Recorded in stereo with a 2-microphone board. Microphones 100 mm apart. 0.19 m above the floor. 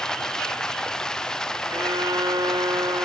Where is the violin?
40° right (ahead or behind).